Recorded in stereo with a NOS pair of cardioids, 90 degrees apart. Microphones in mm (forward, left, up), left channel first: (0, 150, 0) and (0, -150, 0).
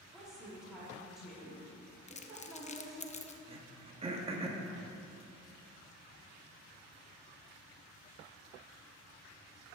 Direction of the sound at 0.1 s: Straight ahead.